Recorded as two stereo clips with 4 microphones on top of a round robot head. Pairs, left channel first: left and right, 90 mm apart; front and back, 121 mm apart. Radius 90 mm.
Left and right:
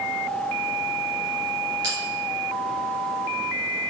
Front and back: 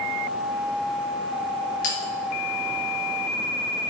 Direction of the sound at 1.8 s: 30° right.